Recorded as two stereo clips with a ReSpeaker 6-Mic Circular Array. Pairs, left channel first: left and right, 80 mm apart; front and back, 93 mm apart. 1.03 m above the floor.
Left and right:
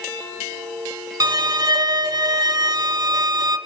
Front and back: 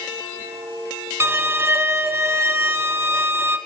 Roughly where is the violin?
Behind right.